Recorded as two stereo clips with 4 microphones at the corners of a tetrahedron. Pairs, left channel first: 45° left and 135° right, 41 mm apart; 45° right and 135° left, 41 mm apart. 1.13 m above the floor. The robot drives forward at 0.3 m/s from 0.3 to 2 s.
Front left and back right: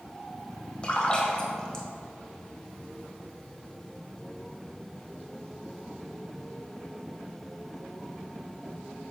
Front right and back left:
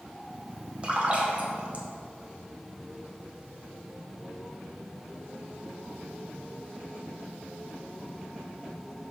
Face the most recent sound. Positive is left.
turn(degrees=115)